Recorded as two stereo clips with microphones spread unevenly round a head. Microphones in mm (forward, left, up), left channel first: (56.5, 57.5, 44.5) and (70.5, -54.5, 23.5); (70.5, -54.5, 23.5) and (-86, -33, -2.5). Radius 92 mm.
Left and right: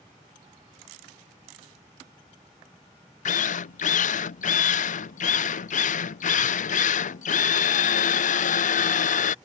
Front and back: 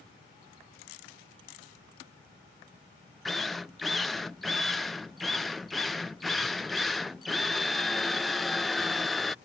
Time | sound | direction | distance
3.2 | a drill | 85° left | ?